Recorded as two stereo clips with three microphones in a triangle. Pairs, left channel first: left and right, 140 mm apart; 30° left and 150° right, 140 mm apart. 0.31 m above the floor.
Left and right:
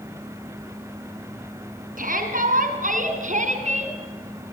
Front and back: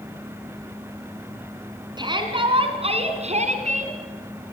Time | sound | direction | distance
2.0 | a shout | 90° right | 4 m